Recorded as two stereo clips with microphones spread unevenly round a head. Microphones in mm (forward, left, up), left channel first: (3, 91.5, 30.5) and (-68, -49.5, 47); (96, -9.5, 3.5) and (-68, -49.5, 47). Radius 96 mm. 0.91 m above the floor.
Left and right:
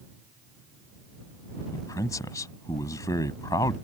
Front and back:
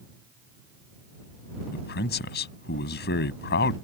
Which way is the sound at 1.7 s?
10° right.